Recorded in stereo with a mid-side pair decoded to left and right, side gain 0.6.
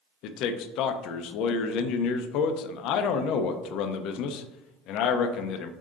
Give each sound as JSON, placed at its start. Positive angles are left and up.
{"t": 0.2, "sound": "a man speaking", "azimuth_deg": 65, "distance_m": 0.5}